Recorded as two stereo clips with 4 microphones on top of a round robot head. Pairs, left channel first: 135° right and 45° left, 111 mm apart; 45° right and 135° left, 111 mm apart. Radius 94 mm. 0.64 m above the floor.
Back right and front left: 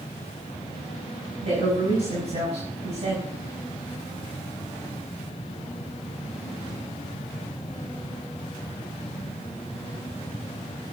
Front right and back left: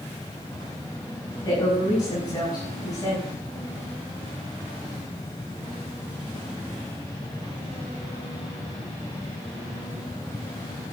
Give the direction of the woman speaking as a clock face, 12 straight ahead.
12 o'clock.